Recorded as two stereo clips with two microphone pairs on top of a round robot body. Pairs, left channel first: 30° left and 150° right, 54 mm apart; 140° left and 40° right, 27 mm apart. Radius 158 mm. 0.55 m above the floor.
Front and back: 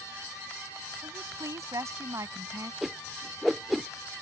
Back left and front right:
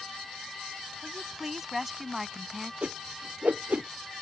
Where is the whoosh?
60° right.